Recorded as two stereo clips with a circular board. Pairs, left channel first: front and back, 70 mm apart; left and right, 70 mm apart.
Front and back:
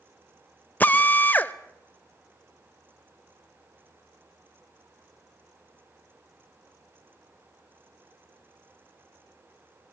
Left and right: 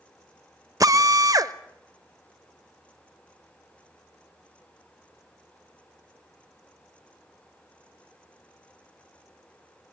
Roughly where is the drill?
Ahead right.